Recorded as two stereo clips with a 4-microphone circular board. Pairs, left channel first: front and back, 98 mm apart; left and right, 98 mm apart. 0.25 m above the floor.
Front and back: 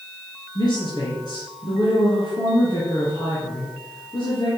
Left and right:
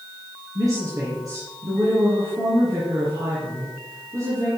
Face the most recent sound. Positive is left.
turn(degrees=-40)